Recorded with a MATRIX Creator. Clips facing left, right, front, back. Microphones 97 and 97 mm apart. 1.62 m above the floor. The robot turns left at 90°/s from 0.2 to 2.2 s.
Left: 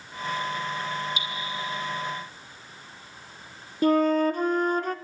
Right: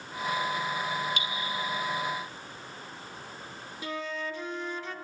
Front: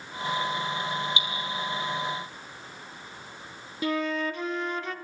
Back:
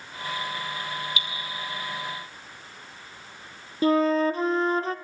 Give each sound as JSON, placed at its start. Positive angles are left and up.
{"t": 1.2, "sound": "dripping", "azimuth_deg": -65, "distance_m": 2.5}
{"t": 3.8, "sound": "a flute", "azimuth_deg": 125, "distance_m": 0.5}